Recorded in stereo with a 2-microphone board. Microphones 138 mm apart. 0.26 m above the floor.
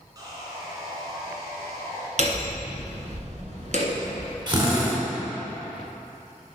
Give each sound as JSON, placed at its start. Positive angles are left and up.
{"t": 0.1, "sound": "sawing", "side_deg": -30, "distance_m": 3.0}
{"t": 2.2, "sound": "hammering", "side_deg": -60, "distance_m": 1.2}
{"t": 4.5, "sound": "a drill", "side_deg": -35, "distance_m": 2.5}